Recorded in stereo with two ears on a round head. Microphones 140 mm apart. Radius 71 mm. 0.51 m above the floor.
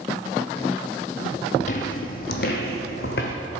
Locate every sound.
1.6 s footsteps: 50° left (ahead or behind), 0.9 m; by 3.3 s 65° left (ahead or behind), 1.6 m